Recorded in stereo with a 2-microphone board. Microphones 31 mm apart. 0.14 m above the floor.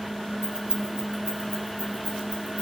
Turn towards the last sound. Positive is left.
turn(degrees=-55)  # may be behind; listen again after turning